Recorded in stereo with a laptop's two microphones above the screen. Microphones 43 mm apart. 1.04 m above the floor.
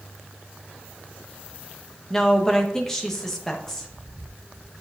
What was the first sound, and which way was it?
A woman speaking, 10° left (ahead or behind).